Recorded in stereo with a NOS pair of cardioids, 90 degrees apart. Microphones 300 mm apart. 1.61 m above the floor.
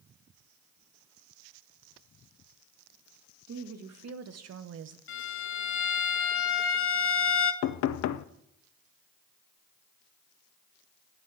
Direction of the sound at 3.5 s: 65° right.